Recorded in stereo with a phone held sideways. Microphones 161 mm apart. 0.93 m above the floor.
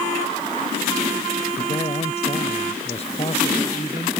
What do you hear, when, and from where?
1.6 s a man speaking: 40° left (ahead or behind)